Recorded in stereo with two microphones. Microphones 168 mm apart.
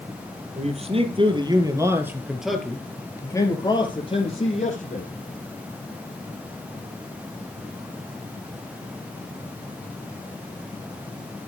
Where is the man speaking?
40° right (ahead or behind), 4 m; by 5.1 s 45° left (ahead or behind), 4.5 m.